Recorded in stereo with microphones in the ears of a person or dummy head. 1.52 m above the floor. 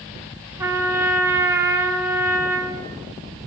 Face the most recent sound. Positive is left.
turn(degrees=-15)  # may be behind; listen again after turning